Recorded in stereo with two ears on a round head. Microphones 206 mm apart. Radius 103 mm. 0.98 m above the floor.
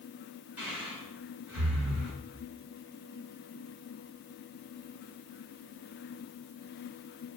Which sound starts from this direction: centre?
Breathing, at 0.6 s.